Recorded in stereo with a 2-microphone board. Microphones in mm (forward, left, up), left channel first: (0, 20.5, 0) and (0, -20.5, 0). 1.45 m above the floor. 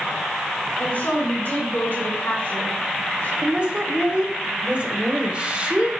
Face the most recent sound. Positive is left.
turn(degrees=-30)  # may be behind; listen again after turning